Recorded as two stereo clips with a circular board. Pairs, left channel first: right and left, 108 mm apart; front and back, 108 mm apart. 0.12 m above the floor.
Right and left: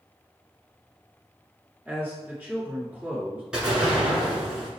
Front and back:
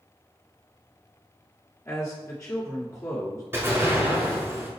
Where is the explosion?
160° left, 1.4 m.